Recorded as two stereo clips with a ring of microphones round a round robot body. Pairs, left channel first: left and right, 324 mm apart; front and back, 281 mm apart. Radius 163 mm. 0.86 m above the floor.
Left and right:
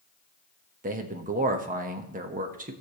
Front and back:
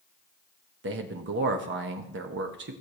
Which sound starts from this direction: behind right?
A man speaking, at 0.8 s.